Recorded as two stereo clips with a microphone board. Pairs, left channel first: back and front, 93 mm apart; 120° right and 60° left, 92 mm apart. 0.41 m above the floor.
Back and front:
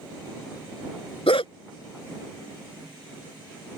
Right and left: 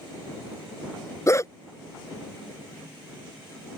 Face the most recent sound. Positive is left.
turn(degrees=-175)